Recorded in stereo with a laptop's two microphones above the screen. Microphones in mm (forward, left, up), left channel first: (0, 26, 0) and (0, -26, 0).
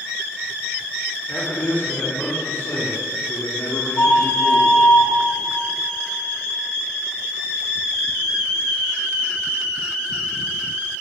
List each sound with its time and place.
1.3 s a man speaking: 35° left (ahead or behind), 2.5 m; by 4.8 s 75° left (ahead or behind), 1.9 m
4.0 s a flute: 80° left, 3.5 m